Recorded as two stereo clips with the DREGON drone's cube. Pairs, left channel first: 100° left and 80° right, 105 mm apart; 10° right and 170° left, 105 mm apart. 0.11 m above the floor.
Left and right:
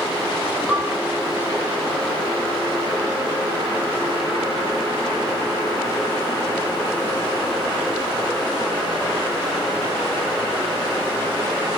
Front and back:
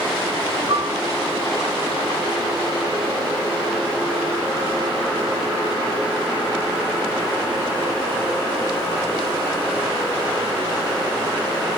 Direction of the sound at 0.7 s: 165° right.